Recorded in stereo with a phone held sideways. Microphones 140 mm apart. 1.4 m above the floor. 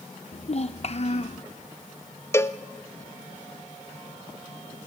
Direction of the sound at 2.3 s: 20° left (ahead or behind).